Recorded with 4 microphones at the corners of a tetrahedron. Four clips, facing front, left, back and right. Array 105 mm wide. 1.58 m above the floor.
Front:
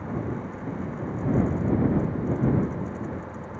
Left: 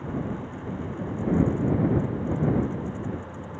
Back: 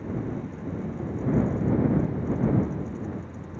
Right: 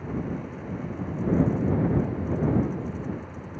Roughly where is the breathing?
I don't hear breathing.